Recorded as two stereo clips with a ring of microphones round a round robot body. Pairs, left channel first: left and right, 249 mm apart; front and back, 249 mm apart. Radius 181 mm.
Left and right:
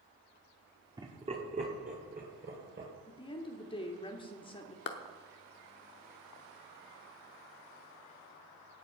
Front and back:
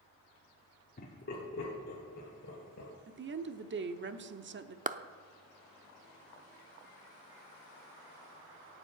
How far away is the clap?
About 0.7 m.